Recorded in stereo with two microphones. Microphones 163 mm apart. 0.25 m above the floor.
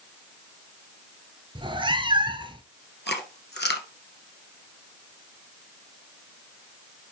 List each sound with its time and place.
1.6 s a cat meowing: 30° right (ahead or behind), 1.0 m
3.1 s chewing: 80° left, 1.7 m